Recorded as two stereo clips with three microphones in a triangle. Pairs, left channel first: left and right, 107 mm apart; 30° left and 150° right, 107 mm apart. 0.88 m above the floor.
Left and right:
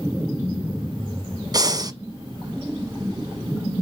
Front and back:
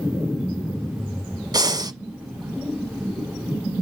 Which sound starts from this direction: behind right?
Breathing, at 1.5 s.